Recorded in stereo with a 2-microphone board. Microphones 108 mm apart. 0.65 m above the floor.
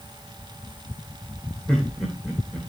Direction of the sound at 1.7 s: 5° left (ahead or behind).